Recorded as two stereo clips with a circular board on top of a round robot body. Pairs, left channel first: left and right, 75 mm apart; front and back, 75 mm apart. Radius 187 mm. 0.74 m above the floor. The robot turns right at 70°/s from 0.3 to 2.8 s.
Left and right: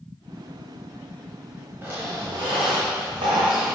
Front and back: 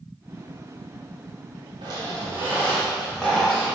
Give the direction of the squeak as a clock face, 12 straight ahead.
5 o'clock.